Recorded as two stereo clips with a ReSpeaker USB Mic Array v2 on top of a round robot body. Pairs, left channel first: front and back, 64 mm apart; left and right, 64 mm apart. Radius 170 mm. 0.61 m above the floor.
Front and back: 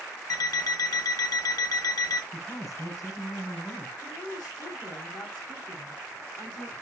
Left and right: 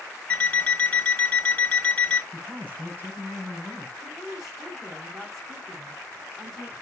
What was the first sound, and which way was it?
An alarm clock, 20° left.